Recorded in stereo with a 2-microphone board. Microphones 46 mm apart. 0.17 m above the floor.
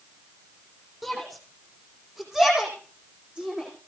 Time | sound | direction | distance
1.0 | a shout | centre (ahead or behind) | 8 m